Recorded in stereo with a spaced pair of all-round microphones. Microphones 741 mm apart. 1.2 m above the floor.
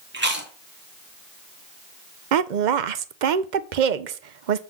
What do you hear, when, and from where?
0.1 s chewing: 15° right (ahead or behind), 1.6 m
2.3 s a woman speaking: 70° right (ahead or behind), 0.7 m